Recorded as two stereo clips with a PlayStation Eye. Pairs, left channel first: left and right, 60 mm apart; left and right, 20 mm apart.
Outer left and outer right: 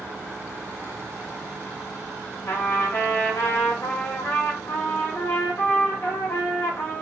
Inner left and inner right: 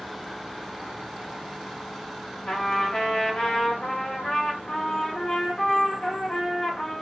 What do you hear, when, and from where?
2.5 s a trumpet: 35° left (ahead or behind), 1.2 m